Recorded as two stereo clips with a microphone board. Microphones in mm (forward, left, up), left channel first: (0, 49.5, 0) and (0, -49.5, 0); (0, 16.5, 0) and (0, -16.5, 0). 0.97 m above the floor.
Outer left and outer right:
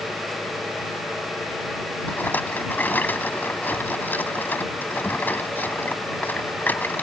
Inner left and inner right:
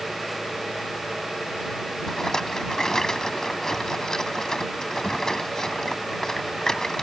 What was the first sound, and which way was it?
A rattle, 20° left (ahead or behind).